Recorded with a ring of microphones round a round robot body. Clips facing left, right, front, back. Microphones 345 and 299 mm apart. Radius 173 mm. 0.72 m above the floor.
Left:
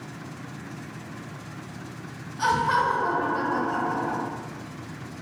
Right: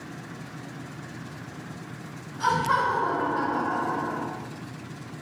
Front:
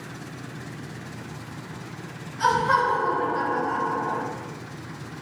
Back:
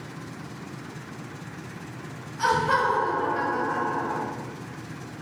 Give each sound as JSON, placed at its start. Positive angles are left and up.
{"t": 2.4, "sound": "laughter", "azimuth_deg": 100, "distance_m": 1.0}